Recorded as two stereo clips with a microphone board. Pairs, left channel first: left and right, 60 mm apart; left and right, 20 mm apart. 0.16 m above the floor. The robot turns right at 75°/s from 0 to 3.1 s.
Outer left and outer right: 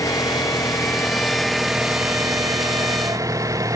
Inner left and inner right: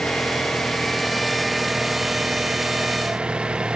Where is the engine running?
60° left; by 3.8 s 65° right.